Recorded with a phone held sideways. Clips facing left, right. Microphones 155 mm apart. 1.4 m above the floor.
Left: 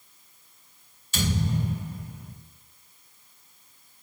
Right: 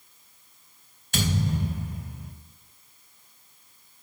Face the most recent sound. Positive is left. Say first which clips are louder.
# even
turn(degrees=-60)  # may be behind; listen again after turning